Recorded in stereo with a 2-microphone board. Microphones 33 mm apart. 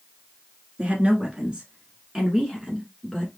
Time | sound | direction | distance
0.8 | a woman speaking | 35° right (ahead or behind) | 1.7 m